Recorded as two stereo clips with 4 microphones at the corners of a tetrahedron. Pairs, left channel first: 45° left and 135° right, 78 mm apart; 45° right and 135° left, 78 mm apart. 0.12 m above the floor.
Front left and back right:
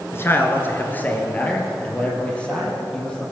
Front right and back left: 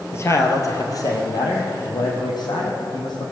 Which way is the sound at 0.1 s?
Straight ahead.